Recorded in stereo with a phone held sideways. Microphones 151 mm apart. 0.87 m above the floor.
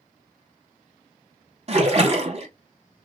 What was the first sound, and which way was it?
A splash, 45° right (ahead or behind).